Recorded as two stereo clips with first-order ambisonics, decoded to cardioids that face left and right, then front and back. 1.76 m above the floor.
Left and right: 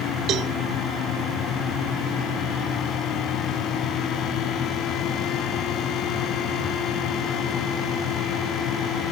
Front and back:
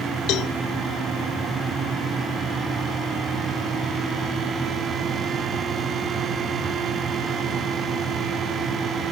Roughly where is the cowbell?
Ahead right.